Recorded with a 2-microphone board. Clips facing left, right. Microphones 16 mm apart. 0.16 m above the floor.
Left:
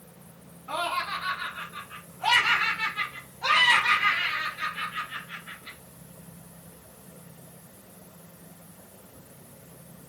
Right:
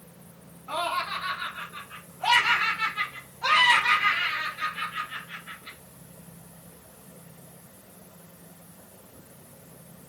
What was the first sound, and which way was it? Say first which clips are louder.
Laughter: even; centre (ahead or behind).